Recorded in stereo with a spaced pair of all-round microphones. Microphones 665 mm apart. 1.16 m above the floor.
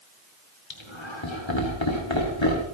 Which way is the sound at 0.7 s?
40° left (ahead or behind).